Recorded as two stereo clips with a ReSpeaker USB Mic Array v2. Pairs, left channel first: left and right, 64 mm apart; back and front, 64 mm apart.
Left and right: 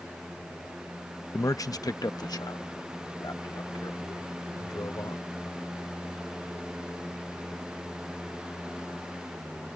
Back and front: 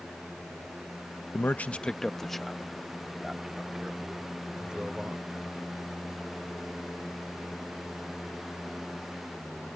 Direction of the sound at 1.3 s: 130° left.